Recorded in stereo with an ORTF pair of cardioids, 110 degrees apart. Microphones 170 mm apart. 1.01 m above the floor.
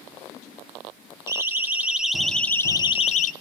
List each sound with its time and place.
1.3 s a siren: 15° right, 2.5 m; by 3.3 s 60° left, 1.1 m